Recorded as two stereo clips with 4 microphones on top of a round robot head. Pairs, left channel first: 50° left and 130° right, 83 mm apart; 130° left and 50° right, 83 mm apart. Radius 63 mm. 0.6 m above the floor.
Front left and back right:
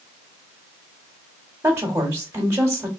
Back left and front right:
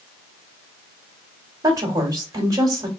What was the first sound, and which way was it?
A woman speaking, 75° right.